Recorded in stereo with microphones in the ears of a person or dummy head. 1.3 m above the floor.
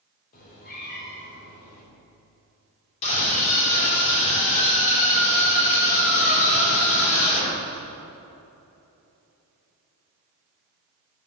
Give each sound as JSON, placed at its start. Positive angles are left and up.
{"t": 0.3, "sound": "a cat meowing", "side_deg": 45, "distance_m": 3.0}
{"t": 3.0, "sound": "a scream", "side_deg": 35, "distance_m": 3.5}